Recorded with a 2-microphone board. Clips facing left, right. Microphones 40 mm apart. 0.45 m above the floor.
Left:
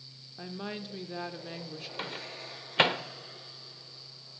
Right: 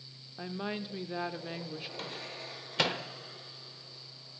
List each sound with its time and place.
0.4 s a woman speaking: 10° right (ahead or behind), 1.0 m
2.0 s a microwave: 35° left (ahead or behind), 1.2 m